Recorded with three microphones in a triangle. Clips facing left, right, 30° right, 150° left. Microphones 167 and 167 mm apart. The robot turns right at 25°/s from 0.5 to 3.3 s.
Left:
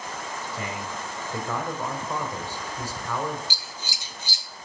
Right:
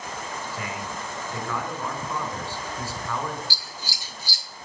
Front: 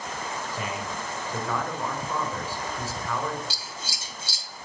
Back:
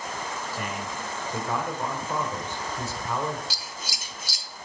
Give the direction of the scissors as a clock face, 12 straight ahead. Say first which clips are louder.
Even, even; 11 o'clock.